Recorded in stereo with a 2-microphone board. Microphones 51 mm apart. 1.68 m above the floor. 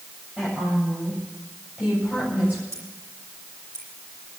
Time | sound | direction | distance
0.4 | a woman speaking | 20° right (ahead or behind) | 8.5 m
2.7 | scissors | 75° right (ahead or behind) | 9 m